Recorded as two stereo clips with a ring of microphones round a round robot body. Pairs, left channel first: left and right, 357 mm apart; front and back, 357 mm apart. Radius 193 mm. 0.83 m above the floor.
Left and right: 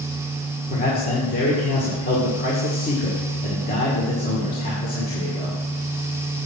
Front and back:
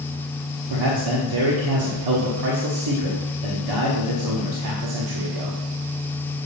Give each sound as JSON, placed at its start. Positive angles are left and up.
{"t": 0.7, "sound": "a man speaking", "azimuth_deg": 160, "distance_m": 1.7}